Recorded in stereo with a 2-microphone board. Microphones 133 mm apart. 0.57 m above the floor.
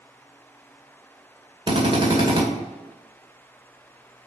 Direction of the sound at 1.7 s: 40° right (ahead or behind).